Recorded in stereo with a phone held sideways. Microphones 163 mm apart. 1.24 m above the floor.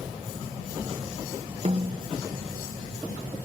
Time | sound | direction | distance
1.6 | a snare drum | 45° right (ahead or behind) | ?